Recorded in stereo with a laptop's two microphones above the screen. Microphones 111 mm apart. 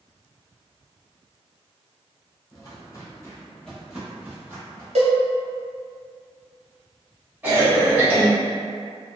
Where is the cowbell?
75° right (ahead or behind), 0.9 m.